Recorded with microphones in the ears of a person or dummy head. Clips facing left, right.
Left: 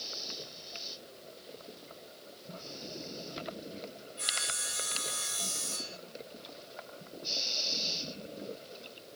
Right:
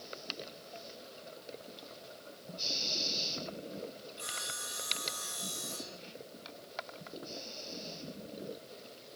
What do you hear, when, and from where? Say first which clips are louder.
4.2 s sawing: left 2 dB; 25° left (ahead or behind), 1.2 m